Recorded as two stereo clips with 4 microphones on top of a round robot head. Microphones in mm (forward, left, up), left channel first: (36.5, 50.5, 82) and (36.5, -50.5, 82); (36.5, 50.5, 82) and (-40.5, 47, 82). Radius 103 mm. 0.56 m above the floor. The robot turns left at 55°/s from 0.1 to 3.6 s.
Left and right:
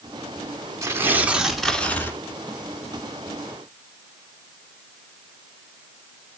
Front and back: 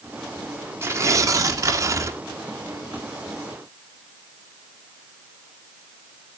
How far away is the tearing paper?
About 1.7 m.